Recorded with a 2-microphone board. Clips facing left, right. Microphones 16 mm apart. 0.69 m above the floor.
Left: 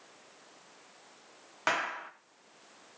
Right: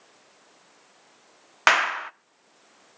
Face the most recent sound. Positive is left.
turn(degrees=-55)  # may be behind; listen again after turning